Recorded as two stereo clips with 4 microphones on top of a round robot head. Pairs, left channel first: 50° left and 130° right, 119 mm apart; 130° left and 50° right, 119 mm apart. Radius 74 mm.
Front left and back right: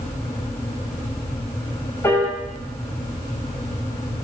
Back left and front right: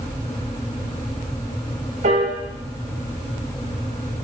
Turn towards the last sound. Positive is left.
turn(degrees=-20)